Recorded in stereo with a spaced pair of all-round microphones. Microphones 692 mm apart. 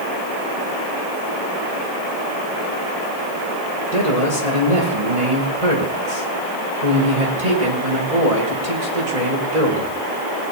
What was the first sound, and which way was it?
A man speaking, 70° right (ahead or behind).